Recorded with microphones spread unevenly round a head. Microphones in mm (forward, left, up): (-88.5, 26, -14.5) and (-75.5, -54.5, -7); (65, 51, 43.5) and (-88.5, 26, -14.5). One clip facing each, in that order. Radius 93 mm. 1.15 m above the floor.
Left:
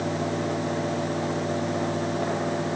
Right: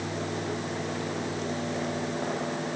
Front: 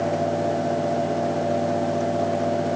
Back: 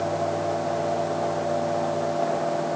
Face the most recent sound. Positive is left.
No sound to turn to.